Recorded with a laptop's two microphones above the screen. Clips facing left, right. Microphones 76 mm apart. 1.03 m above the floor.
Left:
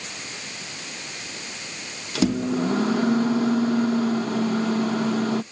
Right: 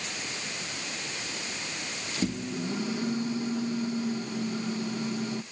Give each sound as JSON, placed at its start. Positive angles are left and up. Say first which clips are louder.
{"t": 2.1, "sound": "a microwave", "louder": "left 10 dB", "side_deg": 85}